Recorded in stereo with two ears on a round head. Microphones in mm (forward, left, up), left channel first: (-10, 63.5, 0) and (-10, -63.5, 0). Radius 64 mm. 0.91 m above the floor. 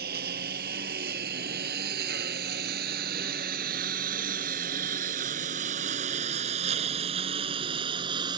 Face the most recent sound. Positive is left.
turn(degrees=-30)  # may be behind; listen again after turning